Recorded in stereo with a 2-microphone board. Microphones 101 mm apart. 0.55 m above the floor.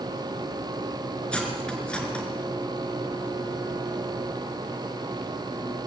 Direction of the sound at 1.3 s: 10° left (ahead or behind).